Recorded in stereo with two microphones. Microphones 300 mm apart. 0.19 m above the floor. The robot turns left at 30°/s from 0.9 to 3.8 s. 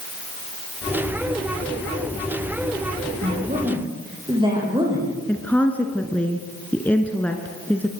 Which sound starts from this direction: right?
A woman speaking, at 3.2 s.